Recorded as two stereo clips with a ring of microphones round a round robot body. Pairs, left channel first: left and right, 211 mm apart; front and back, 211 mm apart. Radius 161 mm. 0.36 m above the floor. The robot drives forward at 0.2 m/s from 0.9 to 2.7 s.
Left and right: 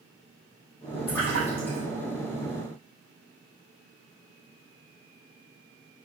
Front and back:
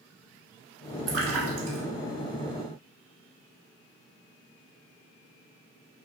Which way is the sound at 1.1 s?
175° left.